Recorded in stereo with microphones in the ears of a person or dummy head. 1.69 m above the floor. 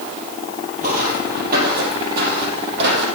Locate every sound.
0.8 s footsteps: 40° right (ahead or behind), 3 m; by 3.1 s 60° right (ahead or behind), 4.5 m